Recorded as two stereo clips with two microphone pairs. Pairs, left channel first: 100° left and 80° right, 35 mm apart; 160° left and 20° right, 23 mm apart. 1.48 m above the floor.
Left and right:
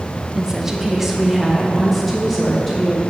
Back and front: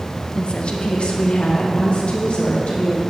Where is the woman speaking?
155° right, 1.0 m; by 3.0 s 170° right, 3 m.